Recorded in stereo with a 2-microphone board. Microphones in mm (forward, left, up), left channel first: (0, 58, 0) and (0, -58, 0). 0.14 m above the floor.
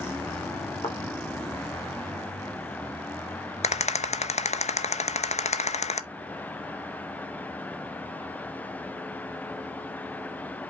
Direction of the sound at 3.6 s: 80° left.